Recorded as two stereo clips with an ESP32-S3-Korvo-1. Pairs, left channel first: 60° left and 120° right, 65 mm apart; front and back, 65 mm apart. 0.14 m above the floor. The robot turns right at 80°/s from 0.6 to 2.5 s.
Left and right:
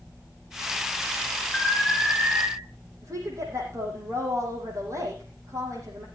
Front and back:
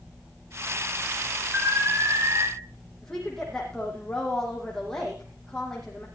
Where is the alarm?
125° left, 3.5 m; by 2.5 s 160° right, 3.5 m.